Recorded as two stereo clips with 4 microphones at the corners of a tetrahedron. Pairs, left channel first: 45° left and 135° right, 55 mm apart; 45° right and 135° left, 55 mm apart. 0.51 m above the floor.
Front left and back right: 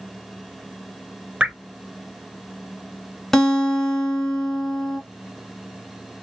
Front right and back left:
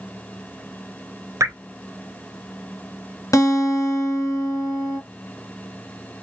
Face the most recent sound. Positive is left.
turn(degrees=-40)